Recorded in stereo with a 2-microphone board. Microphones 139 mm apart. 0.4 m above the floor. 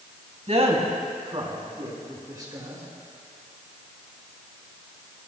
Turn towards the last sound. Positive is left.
turn(degrees=-25)  # may be behind; listen again after turning